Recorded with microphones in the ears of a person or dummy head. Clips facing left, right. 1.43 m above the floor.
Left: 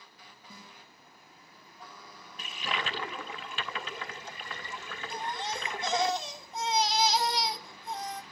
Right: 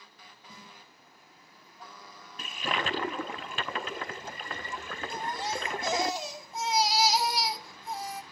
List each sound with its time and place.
0.5 s a snare drum: 25° right (ahead or behind), 6 m
2.4 s a toilet flushing: 40° right (ahead or behind), 0.6 m
5.1 s a baby crying: 5° right (ahead or behind), 1.1 m